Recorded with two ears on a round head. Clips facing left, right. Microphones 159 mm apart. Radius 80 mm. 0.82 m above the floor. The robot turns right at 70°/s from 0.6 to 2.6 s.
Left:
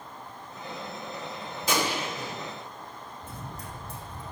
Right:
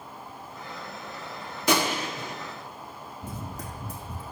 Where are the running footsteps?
65° right (ahead or behind), 2.5 m.